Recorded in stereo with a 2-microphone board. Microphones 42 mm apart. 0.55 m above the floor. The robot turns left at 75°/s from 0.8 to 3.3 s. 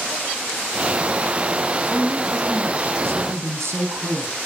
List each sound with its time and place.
1.9 s a woman speaking: 25° left, 4 m; by 4.3 s 80° right, 4 m